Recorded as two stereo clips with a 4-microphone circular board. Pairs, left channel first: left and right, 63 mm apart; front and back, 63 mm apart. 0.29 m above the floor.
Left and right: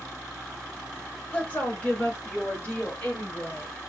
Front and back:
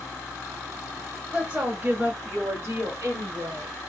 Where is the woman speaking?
125° left, 1.1 m; by 3.7 s 160° left, 1.9 m.